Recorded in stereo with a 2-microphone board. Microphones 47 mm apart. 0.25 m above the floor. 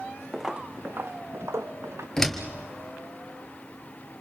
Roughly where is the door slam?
Centre.